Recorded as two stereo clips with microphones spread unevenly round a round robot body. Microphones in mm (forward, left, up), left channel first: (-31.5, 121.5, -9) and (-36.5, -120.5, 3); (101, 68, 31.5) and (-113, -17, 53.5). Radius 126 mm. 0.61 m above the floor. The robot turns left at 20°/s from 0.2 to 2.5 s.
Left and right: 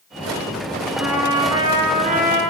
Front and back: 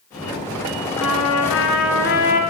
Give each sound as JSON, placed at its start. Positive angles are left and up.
{"t": 1.0, "sound": "a trumpet", "azimuth_deg": -5, "distance_m": 2.5}